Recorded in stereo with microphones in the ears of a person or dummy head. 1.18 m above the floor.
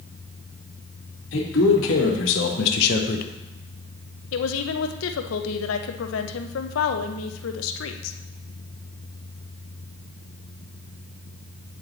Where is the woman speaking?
80° left, 0.7 m.